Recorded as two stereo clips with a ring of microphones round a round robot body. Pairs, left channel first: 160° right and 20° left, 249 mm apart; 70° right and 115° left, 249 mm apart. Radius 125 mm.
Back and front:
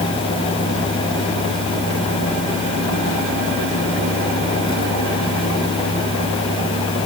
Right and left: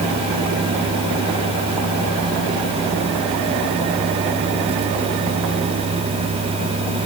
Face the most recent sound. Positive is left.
No sound to turn to.